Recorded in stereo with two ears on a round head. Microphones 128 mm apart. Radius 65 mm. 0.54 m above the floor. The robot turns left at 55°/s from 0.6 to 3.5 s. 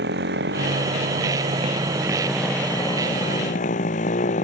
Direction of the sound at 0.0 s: 85° right.